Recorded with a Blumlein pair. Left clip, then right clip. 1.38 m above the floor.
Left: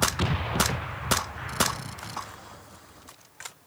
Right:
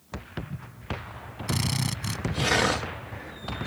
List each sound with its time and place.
1.5 s a drill: 30° right